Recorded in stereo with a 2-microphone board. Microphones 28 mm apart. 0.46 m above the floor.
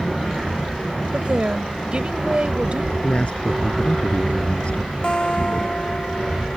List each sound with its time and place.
1.1 s a woman speaking: 45° right (ahead or behind)
3.0 s a man speaking: 45° left (ahead or behind)
5.0 s a guitar: 40° left (ahead or behind)